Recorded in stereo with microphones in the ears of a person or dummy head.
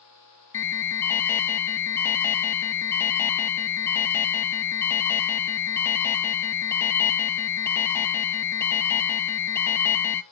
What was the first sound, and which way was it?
An alarm, 10° left (ahead or behind).